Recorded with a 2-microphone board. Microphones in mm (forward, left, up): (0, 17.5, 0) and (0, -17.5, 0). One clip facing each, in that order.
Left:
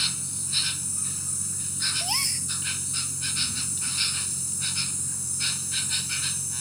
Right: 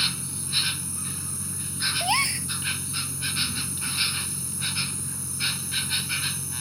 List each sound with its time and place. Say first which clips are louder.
0.0 s an insect: right 2 dB; 15° right (ahead or behind)
2.0 s a gasp: right 6 dB; 30° right (ahead or behind)